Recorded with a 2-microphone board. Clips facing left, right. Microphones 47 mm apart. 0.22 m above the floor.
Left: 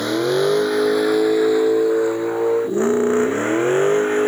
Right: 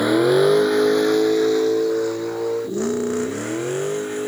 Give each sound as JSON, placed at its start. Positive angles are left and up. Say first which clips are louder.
{"t": 0.0, "sound": "a vehicle", "louder": "right 3 dB", "side_deg": -10}